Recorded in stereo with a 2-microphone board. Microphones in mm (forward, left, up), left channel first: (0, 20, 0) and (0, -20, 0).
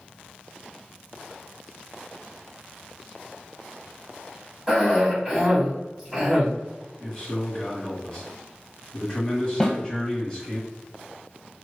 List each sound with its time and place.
4.7 s a cough: 15° right (ahead or behind), 1.5 m
7.0 s a man speaking: 15° left (ahead or behind), 1.7 m
9.6 s a snare drum: 10° left (ahead or behind), 1.3 m